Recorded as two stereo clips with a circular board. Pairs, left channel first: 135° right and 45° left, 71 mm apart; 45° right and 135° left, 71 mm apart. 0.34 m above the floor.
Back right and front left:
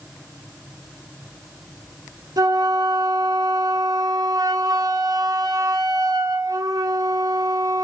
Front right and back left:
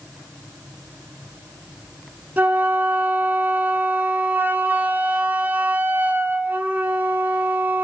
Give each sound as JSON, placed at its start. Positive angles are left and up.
{"t": 2.4, "sound": "a flute", "azimuth_deg": 70, "distance_m": 0.5}